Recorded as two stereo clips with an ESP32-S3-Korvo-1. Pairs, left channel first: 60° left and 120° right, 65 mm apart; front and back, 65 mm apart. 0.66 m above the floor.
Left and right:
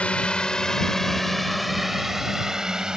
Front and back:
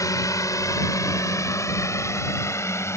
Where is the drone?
10° right; by 3.0 s 40° right.